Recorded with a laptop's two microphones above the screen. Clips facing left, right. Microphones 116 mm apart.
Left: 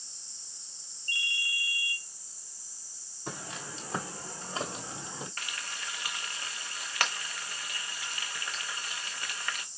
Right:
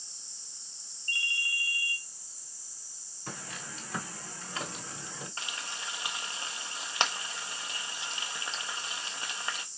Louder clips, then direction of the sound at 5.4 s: Right 1 dB; 25° right (ahead or behind).